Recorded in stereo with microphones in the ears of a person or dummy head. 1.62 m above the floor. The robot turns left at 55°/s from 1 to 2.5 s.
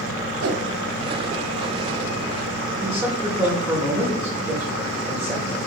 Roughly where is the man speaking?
Centre.